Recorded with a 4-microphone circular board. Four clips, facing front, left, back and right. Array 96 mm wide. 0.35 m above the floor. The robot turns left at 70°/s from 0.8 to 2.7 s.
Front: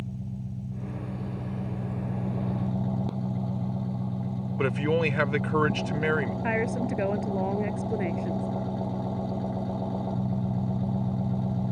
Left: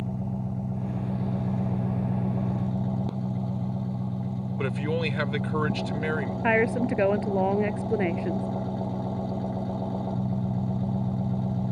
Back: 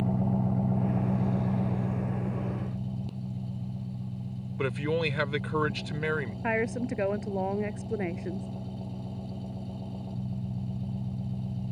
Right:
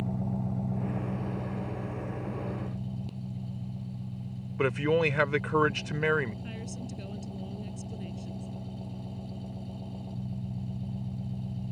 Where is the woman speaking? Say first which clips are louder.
Left 17 dB, back 3 dB; 90° left.